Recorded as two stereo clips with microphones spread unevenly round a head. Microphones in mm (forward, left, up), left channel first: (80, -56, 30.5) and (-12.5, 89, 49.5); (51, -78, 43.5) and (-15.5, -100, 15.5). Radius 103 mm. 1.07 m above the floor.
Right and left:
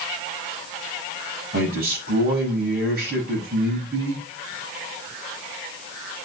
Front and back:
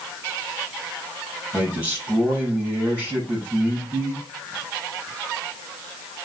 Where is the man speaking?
95° left, 6.5 m.